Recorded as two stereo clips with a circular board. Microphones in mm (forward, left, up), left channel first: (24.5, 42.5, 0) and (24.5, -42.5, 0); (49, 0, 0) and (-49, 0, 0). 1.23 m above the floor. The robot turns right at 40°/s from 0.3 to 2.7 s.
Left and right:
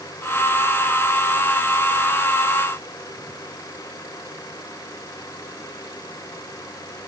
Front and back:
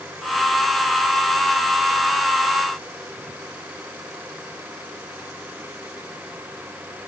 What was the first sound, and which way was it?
Only background noise.